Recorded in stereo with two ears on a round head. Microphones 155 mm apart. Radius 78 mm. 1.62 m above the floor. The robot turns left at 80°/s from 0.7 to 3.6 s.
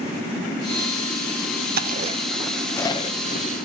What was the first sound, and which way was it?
Chewing, 60° right (ahead or behind).